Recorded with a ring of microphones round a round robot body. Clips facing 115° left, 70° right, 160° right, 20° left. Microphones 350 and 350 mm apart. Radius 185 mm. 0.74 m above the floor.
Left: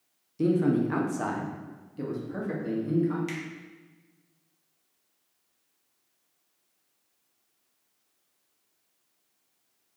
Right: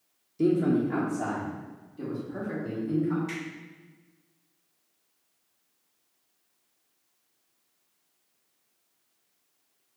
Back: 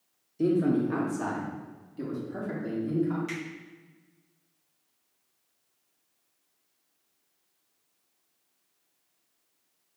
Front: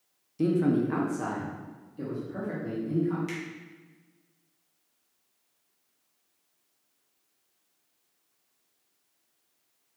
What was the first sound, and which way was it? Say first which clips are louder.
A man speaking: even, even; 40° left.